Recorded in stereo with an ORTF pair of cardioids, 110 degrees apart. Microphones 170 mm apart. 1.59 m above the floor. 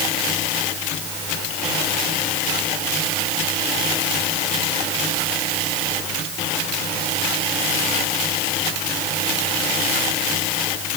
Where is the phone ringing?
No phone ringing in this recording.